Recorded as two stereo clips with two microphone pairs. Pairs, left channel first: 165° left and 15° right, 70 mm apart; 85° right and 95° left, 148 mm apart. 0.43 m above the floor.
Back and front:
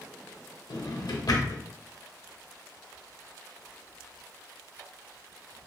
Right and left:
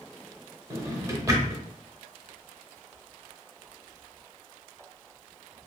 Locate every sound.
0.7 s a drawer: 160° left, 0.7 m